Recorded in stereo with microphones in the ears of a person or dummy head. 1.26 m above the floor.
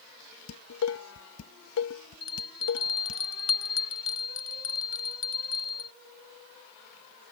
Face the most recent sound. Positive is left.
turn(degrees=30)  # may be behind; listen again after turning